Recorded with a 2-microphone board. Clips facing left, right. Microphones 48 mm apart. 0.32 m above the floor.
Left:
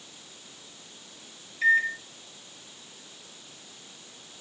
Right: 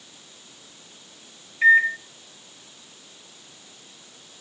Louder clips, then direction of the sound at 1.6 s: Right 6 dB; 30° right (ahead or behind).